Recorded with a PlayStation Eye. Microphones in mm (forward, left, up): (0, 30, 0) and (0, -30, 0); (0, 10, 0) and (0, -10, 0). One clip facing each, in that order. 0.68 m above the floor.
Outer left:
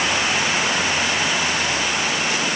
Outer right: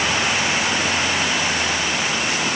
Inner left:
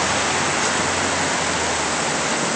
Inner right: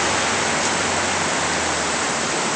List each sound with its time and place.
Only background noise.